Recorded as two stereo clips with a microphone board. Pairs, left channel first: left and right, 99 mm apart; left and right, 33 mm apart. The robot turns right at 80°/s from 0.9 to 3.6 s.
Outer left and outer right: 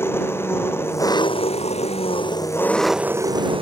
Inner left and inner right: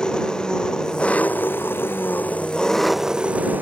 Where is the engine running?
20° left; by 3.6 s 120° right.